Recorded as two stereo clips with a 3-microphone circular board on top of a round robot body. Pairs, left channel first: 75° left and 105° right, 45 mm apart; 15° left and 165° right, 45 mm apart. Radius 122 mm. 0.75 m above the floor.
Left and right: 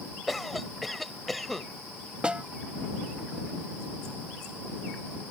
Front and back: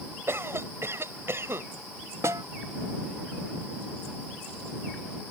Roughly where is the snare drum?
Behind.